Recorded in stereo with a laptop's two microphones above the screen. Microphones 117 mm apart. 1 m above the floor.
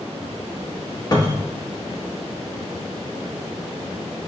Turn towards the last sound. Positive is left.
turn(degrees=35)  # may be behind; listen again after turning